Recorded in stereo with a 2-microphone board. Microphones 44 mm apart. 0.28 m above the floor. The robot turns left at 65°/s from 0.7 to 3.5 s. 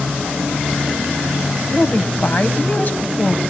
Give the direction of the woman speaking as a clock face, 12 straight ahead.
7 o'clock.